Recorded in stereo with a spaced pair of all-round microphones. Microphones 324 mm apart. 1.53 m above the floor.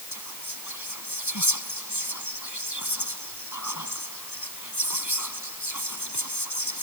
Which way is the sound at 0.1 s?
60° left (ahead or behind).